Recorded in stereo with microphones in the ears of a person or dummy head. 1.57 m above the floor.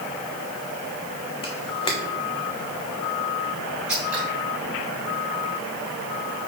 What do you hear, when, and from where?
1.4 s a camera shutter: 20° left (ahead or behind), 1.2 m
3.9 s scissors: 10° right (ahead or behind), 3 m